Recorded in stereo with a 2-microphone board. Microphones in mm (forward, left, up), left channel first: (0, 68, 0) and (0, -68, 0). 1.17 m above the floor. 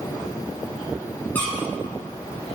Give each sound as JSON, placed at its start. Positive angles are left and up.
{"t": 1.4, "sound": "a squeak", "side_deg": 10, "distance_m": 6.0}